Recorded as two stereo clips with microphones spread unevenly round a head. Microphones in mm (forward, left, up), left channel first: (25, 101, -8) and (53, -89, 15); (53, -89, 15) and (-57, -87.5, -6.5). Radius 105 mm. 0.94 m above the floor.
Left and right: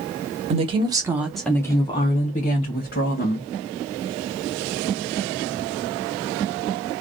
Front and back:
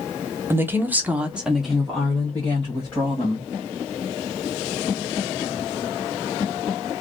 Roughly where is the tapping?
I don't hear tapping.